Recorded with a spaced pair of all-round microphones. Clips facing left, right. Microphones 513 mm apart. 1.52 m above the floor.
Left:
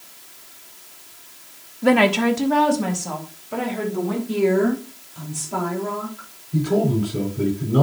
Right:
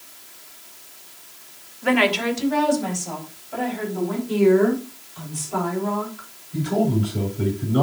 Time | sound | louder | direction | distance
1.8 | a woman speaking | left 4 dB | 55° left (ahead or behind) | 0.9 m
4.3 | a woman speaking | right 3 dB | 65° left (ahead or behind) | 4 m
6.5 | a man speaking | left 2 dB | 70° left (ahead or behind) | 5.5 m